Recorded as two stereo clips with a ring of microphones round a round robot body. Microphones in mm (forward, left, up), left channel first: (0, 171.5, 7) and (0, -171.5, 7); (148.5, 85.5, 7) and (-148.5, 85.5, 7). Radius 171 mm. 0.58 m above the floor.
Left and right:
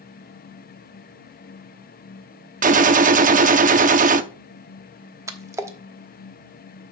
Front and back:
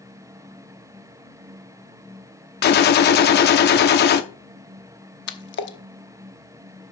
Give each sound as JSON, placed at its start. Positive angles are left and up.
{"t": 2.6, "sound": "a gunshot", "azimuth_deg": -35, "distance_m": 0.6}
{"t": 5.3, "sound": "a splash", "azimuth_deg": -15, "distance_m": 0.9}